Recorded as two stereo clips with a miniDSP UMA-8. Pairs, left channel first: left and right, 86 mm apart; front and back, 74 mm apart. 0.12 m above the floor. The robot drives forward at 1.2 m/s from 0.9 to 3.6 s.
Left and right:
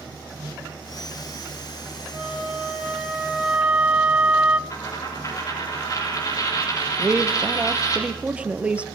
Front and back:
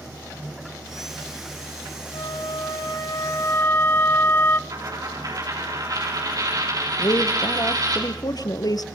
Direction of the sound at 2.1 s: 5° right.